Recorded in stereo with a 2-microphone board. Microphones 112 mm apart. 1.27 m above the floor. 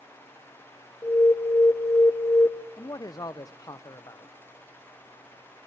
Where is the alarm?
25° left (ahead or behind), 0.6 m.